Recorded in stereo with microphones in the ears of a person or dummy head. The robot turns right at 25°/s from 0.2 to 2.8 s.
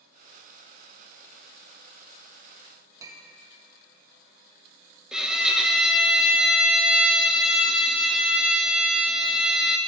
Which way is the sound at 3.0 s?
20° right (ahead or behind).